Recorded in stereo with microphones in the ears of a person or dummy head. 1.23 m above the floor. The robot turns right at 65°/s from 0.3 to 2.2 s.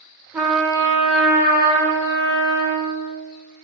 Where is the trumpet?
15° right, 0.7 m; by 3.0 s 105° left, 0.7 m.